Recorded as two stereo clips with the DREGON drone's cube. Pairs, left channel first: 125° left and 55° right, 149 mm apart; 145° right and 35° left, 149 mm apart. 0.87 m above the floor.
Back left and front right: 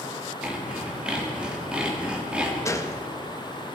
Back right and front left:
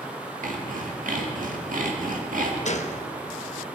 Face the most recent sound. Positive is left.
turn(degrees=-170)